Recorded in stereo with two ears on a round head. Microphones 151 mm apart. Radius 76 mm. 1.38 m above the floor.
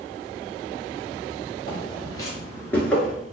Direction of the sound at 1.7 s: 25° left (ahead or behind).